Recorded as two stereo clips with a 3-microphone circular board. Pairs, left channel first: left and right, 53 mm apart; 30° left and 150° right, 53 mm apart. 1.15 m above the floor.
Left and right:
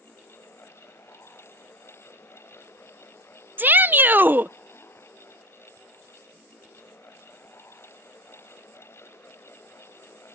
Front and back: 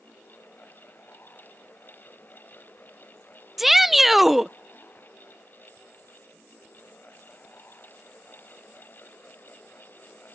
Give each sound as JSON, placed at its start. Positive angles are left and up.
{"t": 3.6, "sound": "a shout", "azimuth_deg": -65}